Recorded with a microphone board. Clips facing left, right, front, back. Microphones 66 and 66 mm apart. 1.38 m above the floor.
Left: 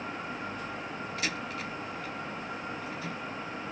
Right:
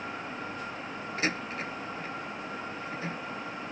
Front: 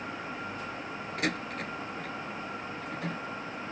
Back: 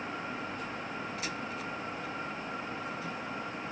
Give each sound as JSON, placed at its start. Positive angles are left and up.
{"t": 1.2, "sound": "a door slam", "azimuth_deg": -35}